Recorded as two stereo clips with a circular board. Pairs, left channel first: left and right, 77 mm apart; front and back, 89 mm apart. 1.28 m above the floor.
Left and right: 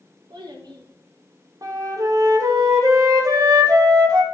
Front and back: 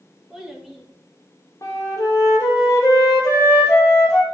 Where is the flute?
50° right, 1.6 m.